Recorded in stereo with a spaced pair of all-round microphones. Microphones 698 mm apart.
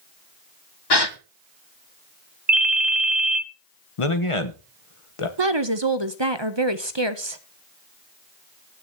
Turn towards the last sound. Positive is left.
turn(degrees=-40)  # may be behind; listen again after turning